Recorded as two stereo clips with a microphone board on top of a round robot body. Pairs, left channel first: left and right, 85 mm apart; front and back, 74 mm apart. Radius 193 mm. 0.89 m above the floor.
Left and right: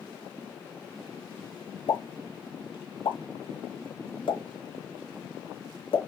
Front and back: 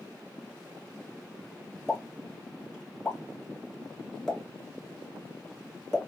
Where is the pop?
85° left, 1.5 m.